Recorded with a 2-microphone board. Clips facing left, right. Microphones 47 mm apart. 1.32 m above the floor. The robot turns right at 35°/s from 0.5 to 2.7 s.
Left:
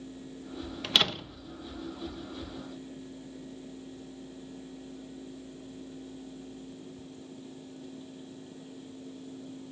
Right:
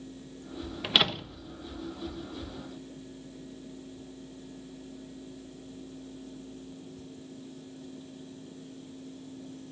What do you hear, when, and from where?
0.8 s a door slam: 15° right (ahead or behind), 1.1 m; by 1.4 s 5° left (ahead or behind), 1.1 m